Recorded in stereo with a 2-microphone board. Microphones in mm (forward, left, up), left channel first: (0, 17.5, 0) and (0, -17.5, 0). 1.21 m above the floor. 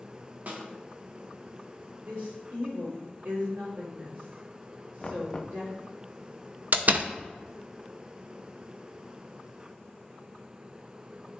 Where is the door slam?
55° right (ahead or behind), 0.6 m.